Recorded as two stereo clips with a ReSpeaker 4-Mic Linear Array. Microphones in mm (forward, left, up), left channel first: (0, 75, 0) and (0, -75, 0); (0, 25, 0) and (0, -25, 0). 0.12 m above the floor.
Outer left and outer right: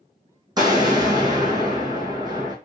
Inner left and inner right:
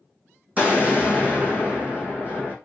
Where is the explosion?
25° right (ahead or behind), 1.9 m.